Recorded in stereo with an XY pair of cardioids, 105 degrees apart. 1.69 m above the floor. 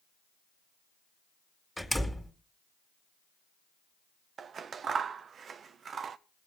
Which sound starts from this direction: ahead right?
Scissors, at 4.4 s.